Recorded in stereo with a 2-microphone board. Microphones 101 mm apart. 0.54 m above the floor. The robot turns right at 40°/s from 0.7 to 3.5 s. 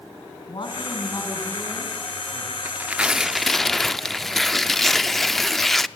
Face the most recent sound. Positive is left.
turn(degrees=5)